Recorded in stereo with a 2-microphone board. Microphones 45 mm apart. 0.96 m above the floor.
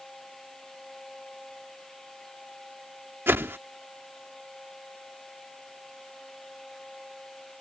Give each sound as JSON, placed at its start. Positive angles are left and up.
{"t": 3.3, "sound": "a whoosh", "side_deg": -65}